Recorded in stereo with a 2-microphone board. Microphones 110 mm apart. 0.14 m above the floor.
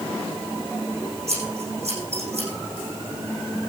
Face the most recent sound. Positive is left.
turn(degrees=-80)